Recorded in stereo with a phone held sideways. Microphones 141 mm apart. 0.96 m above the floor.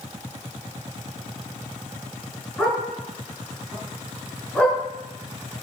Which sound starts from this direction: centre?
A dog barking, at 2.6 s.